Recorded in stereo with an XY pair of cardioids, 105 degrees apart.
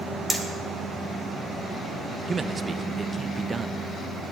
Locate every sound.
0.3 s hammering: 20° right, 2 m
2.3 s a man speaking: 30° right, 0.7 m